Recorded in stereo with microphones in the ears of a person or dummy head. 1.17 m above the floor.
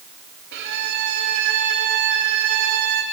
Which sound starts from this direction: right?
A violin, at 0.5 s.